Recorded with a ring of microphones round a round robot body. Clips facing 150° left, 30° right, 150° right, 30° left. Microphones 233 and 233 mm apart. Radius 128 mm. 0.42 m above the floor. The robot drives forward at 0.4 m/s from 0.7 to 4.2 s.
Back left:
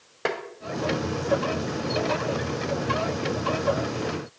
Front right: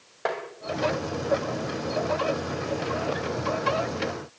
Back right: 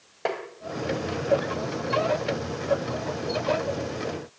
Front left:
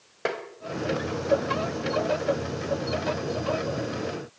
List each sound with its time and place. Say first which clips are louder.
0.2 s tapping: back left 2 dB, even; 100° left, 2.5 m